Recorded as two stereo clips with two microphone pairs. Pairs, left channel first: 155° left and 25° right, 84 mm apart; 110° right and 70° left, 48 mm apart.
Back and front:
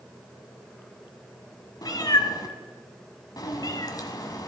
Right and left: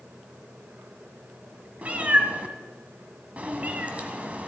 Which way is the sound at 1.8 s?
125° left.